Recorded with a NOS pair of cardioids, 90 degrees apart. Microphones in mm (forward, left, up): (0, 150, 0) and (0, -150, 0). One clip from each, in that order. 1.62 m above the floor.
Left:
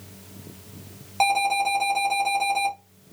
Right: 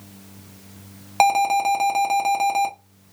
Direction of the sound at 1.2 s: 45° right.